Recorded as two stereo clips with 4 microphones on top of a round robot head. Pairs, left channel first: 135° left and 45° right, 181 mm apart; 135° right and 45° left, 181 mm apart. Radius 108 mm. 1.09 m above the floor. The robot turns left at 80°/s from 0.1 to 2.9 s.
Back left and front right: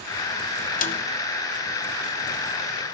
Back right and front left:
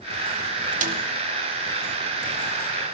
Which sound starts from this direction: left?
A snare drum, at 0.8 s.